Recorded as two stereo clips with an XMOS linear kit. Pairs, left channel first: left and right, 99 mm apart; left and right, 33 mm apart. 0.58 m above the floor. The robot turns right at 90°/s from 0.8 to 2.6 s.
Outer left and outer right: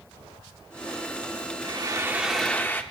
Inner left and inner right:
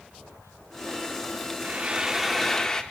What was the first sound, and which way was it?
Frying, 65° right.